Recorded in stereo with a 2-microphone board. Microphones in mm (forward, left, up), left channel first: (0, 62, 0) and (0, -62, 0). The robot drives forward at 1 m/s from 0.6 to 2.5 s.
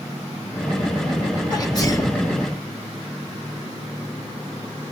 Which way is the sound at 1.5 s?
35° left (ahead or behind).